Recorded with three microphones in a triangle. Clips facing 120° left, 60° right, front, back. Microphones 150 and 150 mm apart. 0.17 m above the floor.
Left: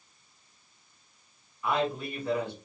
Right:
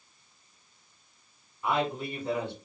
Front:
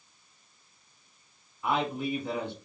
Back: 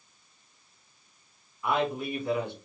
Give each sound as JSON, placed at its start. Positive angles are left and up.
{"t": 1.6, "sound": "a man speaking", "azimuth_deg": -40, "distance_m": 1.7}